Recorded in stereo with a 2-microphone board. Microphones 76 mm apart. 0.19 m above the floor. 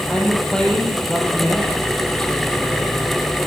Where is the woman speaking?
10° left (ahead or behind), 5 m.